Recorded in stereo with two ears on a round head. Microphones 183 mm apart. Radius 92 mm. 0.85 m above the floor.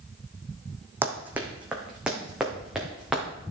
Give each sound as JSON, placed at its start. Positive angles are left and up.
{"t": 1.0, "sound": "running footsteps", "side_deg": -10, "distance_m": 1.8}